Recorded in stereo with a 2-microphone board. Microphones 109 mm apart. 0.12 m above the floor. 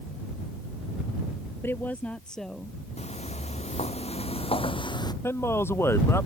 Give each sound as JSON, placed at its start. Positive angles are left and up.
{"t": 1.6, "sound": "a woman speaking", "side_deg": 20}
{"t": 3.0, "sound": "footsteps", "side_deg": 90}
{"t": 5.2, "sound": "a man speaking", "side_deg": 20}